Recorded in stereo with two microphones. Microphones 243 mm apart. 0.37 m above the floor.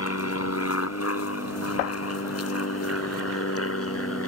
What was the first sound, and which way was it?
An aircraft, 65° left (ahead or behind).